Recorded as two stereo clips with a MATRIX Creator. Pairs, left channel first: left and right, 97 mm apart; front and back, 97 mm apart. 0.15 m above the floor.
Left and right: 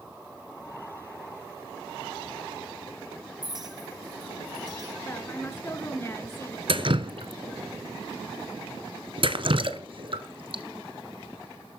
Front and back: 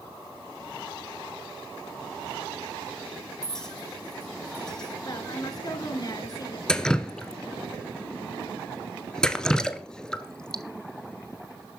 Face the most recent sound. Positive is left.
turn(degrees=-80)